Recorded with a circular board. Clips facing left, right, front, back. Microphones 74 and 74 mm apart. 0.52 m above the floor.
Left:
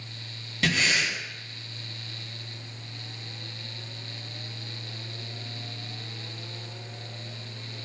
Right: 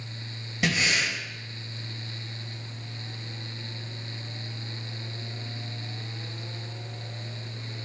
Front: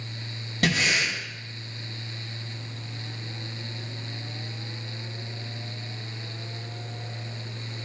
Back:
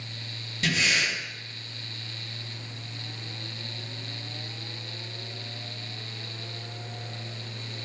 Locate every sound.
0.6 s breathing: 15° right, 2.5 m